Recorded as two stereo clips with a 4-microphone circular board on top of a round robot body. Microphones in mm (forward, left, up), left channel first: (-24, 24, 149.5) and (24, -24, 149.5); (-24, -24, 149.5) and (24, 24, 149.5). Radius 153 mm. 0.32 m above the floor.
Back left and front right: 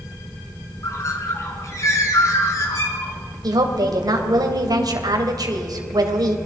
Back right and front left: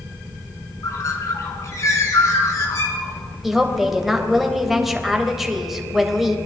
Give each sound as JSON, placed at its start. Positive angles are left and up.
{"t": 0.8, "sound": "a bird", "azimuth_deg": 180, "distance_m": 3.5}
{"t": 3.4, "sound": "a woman speaking", "azimuth_deg": -40, "distance_m": 3.0}